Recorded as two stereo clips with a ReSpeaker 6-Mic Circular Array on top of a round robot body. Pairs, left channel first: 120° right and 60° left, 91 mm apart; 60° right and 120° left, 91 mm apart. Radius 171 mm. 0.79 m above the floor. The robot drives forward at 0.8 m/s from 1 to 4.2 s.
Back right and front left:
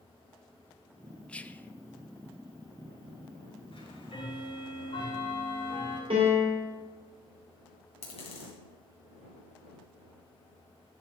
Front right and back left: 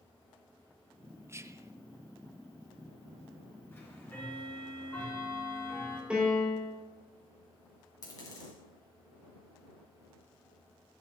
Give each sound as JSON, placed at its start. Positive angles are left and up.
{"t": 1.3, "sound": "whispering", "azimuth_deg": 165, "distance_m": 0.6}
{"t": 3.7, "sound": "ticking", "azimuth_deg": -125, "distance_m": 3.0}
{"t": 6.1, "sound": "a piano", "azimuth_deg": 40, "distance_m": 2.5}
{"t": 8.0, "sound": "a dropped coin", "azimuth_deg": -115, "distance_m": 2.0}